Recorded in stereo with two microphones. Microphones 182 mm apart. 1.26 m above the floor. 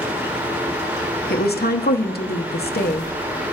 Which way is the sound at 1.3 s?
60° left (ahead or behind).